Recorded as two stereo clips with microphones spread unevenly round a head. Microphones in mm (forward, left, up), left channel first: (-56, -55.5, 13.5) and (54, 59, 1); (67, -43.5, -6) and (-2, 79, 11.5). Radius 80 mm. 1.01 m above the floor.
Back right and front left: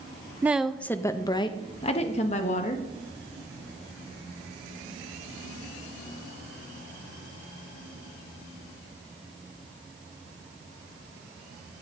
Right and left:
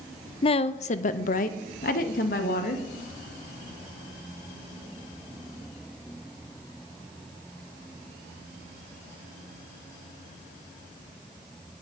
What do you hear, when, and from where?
0.4 s a woman speaking: 25° right, 0.5 m; by 2.9 s 90° right, 1.4 m